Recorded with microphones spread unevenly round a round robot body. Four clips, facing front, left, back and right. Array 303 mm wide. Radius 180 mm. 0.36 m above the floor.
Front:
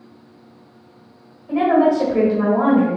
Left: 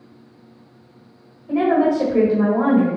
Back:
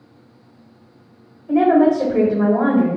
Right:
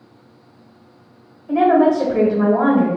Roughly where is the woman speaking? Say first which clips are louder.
Right 3 dB, back 2 dB; behind left.